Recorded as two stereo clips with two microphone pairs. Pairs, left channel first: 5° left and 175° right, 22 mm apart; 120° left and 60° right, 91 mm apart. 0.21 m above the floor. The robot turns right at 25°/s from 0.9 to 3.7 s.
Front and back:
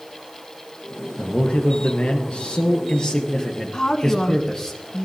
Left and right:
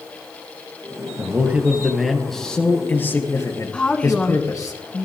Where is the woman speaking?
45° left, 2.5 m.